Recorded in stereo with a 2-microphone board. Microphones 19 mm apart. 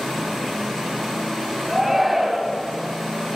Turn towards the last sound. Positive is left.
turn(degrees=-5)  # may be behind; listen again after turning